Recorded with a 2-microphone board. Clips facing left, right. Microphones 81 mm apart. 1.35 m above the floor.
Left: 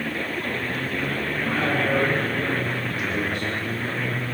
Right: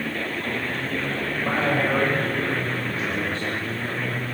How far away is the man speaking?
About 9.5 m.